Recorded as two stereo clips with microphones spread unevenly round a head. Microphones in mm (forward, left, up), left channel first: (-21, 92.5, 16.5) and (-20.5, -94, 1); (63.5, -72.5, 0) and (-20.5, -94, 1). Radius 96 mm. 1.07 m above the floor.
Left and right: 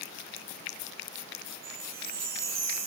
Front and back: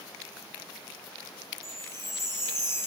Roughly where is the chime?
Ahead right.